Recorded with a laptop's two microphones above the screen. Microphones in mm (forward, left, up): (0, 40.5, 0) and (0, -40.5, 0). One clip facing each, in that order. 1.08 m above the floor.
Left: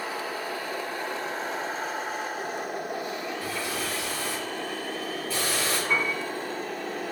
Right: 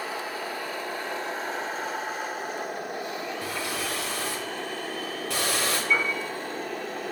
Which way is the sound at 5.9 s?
75° left (ahead or behind).